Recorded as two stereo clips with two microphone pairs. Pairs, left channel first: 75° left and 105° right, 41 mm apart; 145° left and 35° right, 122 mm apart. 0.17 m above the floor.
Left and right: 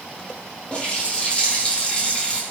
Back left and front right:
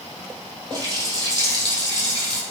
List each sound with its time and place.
0.7 s a running tap: 15° left, 3.5 m